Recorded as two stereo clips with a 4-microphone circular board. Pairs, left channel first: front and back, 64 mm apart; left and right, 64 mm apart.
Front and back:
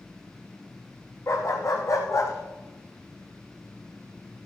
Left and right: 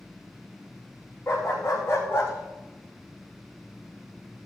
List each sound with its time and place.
1.3 s a dog barking: 40° left, 5 m; by 4.5 s 30° left, 3 m